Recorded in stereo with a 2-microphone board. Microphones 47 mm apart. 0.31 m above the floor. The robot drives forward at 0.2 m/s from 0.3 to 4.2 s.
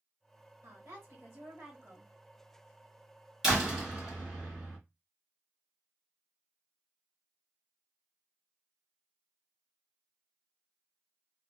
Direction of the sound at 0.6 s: 50° right (ahead or behind).